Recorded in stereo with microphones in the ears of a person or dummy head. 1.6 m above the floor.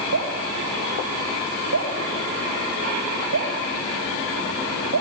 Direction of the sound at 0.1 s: 75° right (ahead or behind).